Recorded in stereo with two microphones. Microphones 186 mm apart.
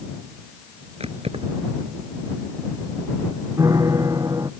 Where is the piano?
20° right (ahead or behind).